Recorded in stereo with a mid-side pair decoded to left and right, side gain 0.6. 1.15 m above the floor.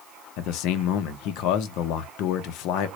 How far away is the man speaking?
About 0.6 m.